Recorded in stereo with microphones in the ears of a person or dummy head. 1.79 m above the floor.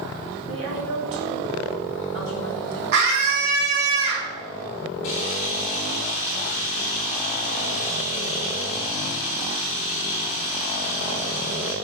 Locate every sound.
0.5 s a woman speaking: 70° right (ahead or behind), 2 m
2.9 s a scream: 55° right (ahead or behind), 3 m
5.0 s a camera shutter: 30° left (ahead or behind), 1.3 m